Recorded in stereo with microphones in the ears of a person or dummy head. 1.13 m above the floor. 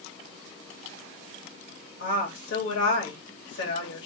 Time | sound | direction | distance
2.0 | a woman speaking | 70° left (ahead or behind) | 2.5 m